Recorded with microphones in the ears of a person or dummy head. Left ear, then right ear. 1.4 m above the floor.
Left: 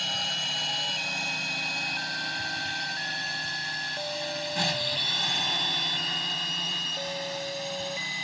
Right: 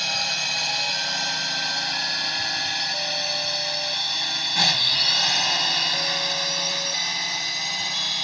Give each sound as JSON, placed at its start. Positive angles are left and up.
{"t": 0.0, "sound": "a drone", "side_deg": -25}